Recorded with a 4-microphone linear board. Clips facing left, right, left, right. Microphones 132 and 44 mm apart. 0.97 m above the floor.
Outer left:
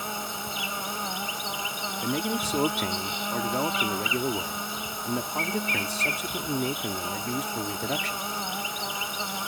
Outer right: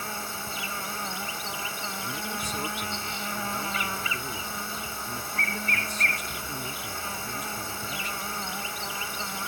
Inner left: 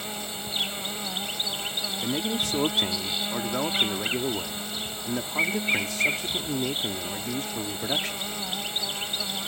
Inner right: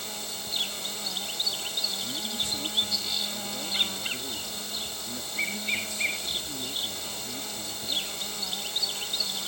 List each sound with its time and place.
0.0 s an insect: 20° left (ahead or behind)
2.0 s a man speaking: 80° left